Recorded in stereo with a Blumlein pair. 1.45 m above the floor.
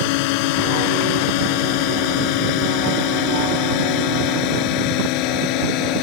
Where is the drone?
45° left; by 6.0 s 40° left.